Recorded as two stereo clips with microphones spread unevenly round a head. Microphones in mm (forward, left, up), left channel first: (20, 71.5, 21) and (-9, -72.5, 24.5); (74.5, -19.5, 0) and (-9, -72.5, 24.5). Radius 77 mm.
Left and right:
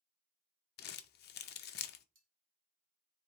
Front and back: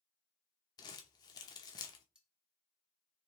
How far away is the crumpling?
About 0.6 m.